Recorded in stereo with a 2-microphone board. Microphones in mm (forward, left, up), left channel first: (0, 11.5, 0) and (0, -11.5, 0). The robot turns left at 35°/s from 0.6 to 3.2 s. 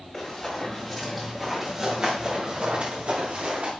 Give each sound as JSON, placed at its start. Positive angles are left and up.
{"t": 0.1, "sound": "running footsteps", "side_deg": 25, "distance_m": 6.0}